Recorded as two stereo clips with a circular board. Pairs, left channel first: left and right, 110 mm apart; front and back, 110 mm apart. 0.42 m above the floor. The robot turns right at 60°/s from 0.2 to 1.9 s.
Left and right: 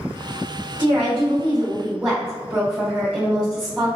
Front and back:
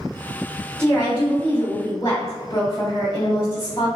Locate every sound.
0.8 s a woman speaking: 80° right, 1.3 m; by 3.9 s 15° right, 1.3 m